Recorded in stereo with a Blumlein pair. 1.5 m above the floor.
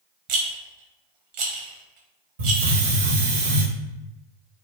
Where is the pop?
I don't hear a pop.